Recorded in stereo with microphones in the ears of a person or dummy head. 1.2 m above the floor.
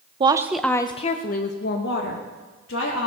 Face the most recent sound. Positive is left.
turn(degrees=75)  # may be behind; listen again after turning